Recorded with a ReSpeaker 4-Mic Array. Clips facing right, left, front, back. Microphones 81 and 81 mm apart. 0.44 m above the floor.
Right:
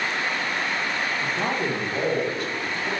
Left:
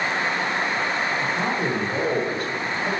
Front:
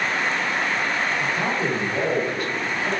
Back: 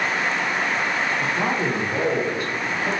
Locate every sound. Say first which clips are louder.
1.2 s a man speaking: left 2 dB, back 1 dB; straight behind, 1.2 m; by 2.9 s 110° left, 1.7 m